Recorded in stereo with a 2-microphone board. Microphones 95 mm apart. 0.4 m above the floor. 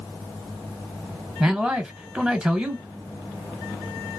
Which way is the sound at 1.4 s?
15° right (ahead or behind).